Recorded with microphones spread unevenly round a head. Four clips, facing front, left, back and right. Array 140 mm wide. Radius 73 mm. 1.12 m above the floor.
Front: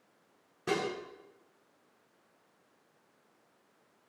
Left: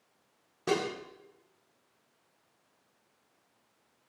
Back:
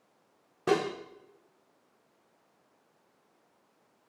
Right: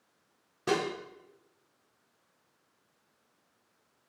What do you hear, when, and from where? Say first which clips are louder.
0.7 s dishes clattering: even, back 5 dB; 170° left, 1.8 m